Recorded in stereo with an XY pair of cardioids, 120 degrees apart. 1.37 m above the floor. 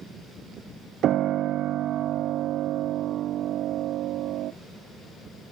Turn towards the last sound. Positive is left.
turn(degrees=-60)